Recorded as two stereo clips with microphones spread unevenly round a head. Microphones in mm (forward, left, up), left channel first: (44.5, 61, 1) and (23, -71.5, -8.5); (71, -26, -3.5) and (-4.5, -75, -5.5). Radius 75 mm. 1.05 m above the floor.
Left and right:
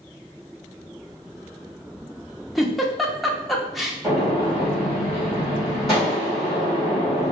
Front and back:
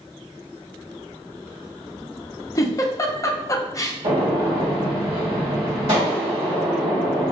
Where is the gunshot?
170° left, 2.0 m.